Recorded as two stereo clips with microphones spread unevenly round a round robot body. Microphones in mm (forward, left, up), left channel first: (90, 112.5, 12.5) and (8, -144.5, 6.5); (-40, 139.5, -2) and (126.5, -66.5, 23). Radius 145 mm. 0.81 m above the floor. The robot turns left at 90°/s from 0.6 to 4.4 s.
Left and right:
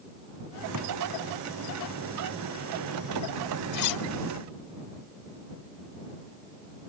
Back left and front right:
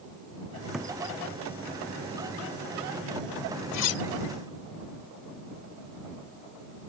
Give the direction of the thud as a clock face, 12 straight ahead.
5 o'clock.